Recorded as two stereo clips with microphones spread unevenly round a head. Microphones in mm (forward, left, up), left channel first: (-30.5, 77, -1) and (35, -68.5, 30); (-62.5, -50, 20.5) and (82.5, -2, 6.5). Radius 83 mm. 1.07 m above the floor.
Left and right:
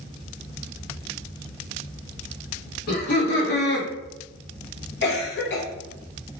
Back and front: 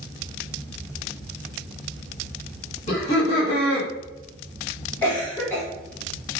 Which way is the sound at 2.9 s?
145° left.